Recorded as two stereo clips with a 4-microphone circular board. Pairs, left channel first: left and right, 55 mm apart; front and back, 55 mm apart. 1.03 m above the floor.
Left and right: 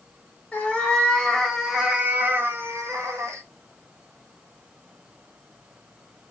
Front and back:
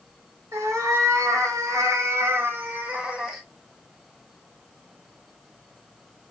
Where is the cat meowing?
155° left, 1.1 m; by 3.4 s 100° right, 0.9 m.